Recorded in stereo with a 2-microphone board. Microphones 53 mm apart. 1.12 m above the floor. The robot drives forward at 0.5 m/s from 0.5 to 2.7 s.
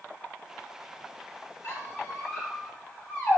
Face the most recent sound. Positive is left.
turn(degrees=40)  # may be behind; listen again after turning